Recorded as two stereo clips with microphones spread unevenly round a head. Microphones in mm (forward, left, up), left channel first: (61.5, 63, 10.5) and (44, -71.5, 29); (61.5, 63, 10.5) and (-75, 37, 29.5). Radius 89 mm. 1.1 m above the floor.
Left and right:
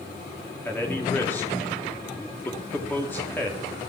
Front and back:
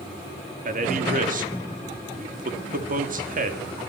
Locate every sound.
0.7 s a man speaking: 160° left, 3 m